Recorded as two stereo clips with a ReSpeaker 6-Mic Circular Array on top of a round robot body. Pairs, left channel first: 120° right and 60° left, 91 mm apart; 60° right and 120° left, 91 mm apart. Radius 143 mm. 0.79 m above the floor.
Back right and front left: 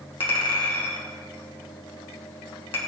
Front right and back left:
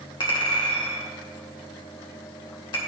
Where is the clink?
95° right, 1.8 m.